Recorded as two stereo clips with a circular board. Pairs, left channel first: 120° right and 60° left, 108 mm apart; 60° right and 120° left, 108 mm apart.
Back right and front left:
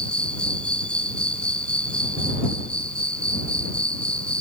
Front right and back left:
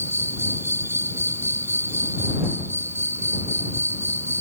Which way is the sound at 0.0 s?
170° left.